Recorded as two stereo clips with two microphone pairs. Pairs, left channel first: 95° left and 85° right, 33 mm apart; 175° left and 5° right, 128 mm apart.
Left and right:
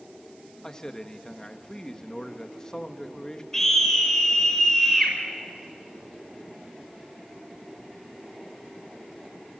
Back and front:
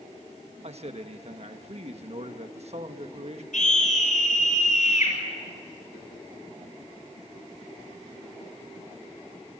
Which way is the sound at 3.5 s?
175° left.